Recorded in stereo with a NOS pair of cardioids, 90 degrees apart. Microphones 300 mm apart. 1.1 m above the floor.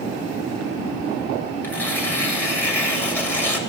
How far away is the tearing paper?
About 3 m.